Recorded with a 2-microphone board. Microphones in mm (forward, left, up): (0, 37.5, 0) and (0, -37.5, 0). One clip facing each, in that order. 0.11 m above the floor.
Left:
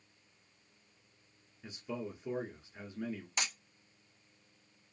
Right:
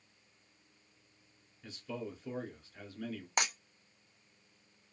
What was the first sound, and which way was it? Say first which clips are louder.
A man speaking: left 1 dB; 20° left (ahead or behind).